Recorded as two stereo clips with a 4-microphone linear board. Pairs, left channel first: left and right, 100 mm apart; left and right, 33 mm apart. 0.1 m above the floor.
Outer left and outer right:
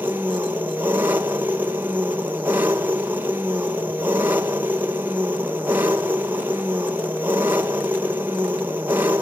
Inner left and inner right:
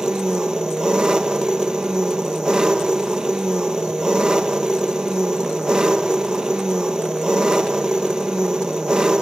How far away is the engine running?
About 1.6 m.